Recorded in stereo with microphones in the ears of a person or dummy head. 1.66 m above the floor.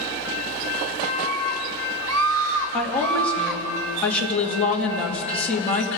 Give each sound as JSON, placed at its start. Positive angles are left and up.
{"t": 1.0, "sound": "a scream", "side_deg": -80, "distance_m": 3.5}
{"t": 2.7, "sound": "a woman speaking", "side_deg": 10, "distance_m": 3.0}